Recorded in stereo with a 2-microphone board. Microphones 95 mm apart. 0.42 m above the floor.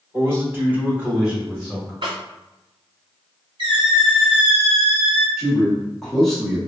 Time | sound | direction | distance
0.1 | a man speaking | 30° right (ahead or behind) | 1.2 m
2.0 | a snare drum | 60° right (ahead or behind) | 1.4 m
3.6 | a squeak | 55° right (ahead or behind) | 1.4 m
5.4 | a man speaking | centre (ahead or behind) | 1.1 m